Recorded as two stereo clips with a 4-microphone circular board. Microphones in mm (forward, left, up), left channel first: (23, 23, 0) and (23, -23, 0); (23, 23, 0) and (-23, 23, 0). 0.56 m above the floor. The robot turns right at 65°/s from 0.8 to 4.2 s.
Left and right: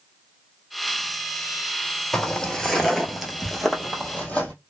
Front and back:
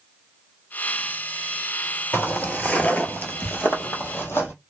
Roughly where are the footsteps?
Ahead.